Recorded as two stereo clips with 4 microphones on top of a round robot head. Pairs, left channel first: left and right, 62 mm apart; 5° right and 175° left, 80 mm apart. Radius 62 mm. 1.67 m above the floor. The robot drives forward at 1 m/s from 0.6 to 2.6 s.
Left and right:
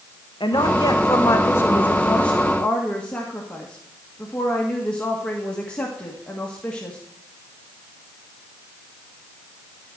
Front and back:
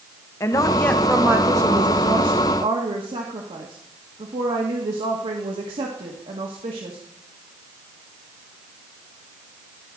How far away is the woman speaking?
About 0.9 m.